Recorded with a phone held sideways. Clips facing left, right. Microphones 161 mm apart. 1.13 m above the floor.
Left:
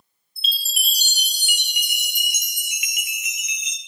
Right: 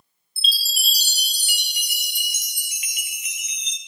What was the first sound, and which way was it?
A chime, 35° right (ahead or behind).